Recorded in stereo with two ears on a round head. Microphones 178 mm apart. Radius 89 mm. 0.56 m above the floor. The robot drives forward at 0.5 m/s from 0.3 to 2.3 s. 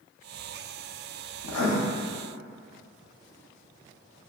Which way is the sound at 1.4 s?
85° left.